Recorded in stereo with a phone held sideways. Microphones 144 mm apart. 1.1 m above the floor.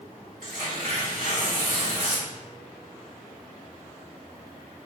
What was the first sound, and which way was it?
Tearing paper, 75° right (ahead or behind).